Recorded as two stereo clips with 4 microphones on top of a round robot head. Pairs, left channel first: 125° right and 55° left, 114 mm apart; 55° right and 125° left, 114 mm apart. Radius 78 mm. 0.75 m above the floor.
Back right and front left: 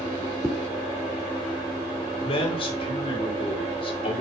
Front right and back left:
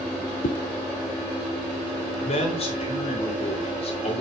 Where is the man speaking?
85° right, 4 m.